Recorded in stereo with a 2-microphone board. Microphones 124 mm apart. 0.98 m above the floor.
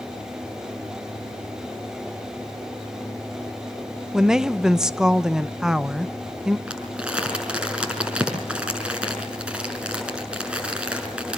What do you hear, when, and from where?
4.1 s a woman speaking: 5° right (ahead or behind), 0.8 m
6.7 s crumpling: 10° right (ahead or behind), 5.5 m